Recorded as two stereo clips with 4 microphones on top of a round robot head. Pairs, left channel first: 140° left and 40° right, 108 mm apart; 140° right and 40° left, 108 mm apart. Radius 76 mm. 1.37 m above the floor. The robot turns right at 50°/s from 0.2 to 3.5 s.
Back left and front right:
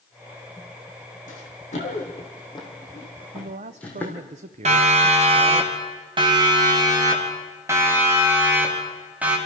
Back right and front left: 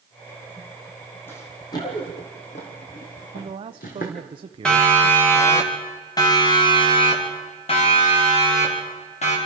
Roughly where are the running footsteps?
Behind left.